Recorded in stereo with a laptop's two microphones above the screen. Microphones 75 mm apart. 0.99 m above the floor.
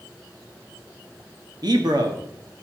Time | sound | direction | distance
1.6 | a man speaking | 65° right (ahead or behind) | 1.4 m